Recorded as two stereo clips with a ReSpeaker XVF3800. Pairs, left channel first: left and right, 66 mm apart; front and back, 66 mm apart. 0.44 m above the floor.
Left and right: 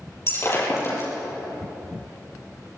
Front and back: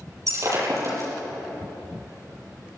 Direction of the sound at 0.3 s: 145° left.